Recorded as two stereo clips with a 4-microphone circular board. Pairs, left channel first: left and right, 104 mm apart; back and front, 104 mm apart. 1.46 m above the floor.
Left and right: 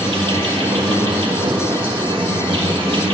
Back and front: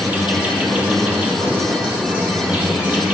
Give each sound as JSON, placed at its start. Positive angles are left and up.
{"t": 0.0, "sound": "an insect", "azimuth_deg": -75, "distance_m": 0.9}